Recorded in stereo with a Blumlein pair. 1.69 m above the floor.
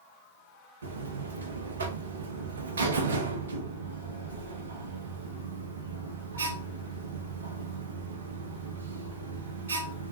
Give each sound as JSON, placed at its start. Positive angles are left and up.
{"t": 0.8, "sound": "a buzzer", "azimuth_deg": -70, "distance_m": 0.6}